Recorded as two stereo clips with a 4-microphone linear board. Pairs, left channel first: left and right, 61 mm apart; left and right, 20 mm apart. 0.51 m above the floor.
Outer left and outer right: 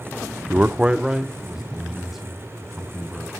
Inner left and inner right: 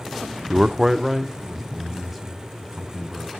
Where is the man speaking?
25° right (ahead or behind), 0.7 m; by 3.4 s centre (ahead or behind), 4.5 m.